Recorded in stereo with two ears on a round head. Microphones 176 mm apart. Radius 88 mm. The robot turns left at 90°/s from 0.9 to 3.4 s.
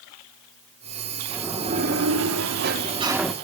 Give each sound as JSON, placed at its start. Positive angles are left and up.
{"t": 1.3, "sound": "a sliding door", "azimuth_deg": 0, "distance_m": 1.5}